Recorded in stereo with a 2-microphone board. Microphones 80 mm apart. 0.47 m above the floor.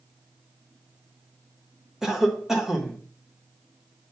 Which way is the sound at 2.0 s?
5° right (ahead or behind).